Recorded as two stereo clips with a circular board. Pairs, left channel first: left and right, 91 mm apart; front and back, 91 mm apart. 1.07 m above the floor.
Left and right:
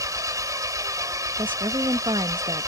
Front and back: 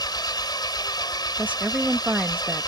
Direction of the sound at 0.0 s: 40° right.